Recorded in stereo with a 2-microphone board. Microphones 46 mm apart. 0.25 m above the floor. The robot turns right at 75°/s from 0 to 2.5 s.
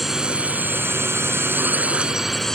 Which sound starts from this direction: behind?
A drone, at 0.0 s.